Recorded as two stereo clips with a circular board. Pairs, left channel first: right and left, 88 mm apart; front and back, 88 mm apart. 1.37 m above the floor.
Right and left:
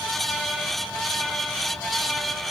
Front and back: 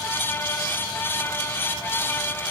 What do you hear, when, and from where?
Only background noise.